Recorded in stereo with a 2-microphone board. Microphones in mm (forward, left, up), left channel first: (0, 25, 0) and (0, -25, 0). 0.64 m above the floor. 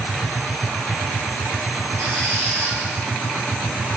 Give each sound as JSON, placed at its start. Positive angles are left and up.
{"t": 2.0, "sound": "a squeak", "side_deg": -60, "distance_m": 9.0}